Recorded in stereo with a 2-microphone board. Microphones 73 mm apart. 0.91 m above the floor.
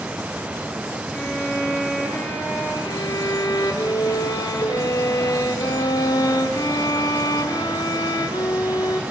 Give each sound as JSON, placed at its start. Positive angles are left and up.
{"t": 1.1, "sound": "a violin", "side_deg": 25, "distance_m": 6.5}
{"t": 2.9, "sound": "a violin", "side_deg": 65, "distance_m": 3.0}